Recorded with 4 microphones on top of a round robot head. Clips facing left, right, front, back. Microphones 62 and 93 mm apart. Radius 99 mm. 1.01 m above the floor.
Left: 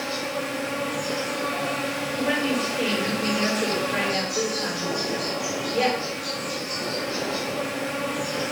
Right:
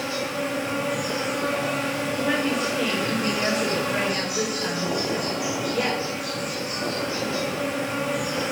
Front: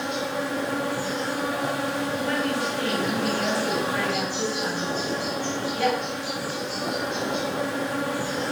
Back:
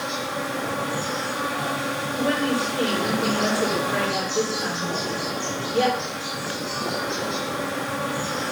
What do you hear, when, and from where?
0.0 s an insect: 175° right, 2.5 m
2.1 s a woman speaking: 155° left, 4 m